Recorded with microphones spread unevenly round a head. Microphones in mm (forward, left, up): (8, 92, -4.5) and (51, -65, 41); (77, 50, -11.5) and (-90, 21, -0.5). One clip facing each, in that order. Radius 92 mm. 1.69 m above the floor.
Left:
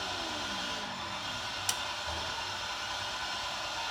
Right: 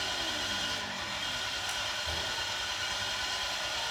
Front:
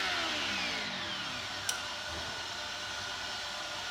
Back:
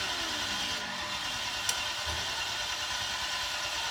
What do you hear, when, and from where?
0.0 s an engine running: 150° right, 5 m
1.7 s a snare drum: 120° left, 1.2 m